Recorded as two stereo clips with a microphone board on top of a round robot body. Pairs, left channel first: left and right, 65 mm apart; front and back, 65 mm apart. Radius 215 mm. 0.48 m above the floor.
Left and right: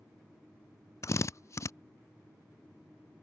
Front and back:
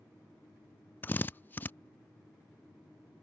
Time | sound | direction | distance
1.0 | a drill | 60° left | ?